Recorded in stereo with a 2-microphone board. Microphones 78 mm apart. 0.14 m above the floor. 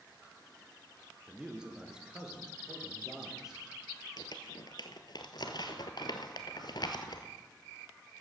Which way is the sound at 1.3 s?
10° right (ahead or behind).